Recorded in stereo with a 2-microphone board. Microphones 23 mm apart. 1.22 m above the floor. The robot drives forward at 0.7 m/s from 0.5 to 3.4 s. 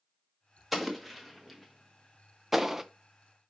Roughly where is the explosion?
Centre.